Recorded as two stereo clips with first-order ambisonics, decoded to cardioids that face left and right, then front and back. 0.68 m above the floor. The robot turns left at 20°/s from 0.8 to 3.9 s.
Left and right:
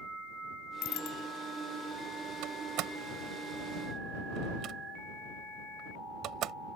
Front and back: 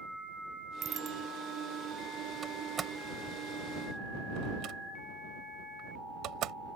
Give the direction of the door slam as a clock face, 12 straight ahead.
4 o'clock.